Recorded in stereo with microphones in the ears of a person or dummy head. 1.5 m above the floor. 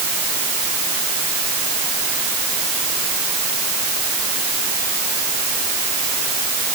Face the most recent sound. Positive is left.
No sound to turn to.